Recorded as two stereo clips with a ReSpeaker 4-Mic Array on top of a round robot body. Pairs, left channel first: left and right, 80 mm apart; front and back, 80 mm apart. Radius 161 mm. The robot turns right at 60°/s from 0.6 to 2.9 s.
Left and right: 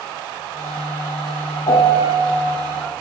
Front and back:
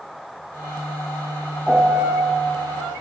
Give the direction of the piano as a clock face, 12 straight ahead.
9 o'clock.